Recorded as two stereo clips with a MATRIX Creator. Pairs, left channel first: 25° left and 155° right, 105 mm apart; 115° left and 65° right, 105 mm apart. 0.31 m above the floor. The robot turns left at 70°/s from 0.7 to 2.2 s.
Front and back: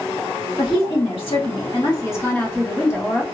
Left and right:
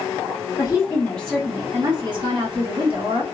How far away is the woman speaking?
About 2 m.